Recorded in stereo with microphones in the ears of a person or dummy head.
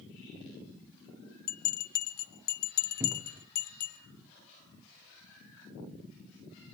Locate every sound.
1.5 s a bell: 55° left (ahead or behind), 0.9 m
3.0 s a cupboard door: 15° right (ahead or behind), 0.7 m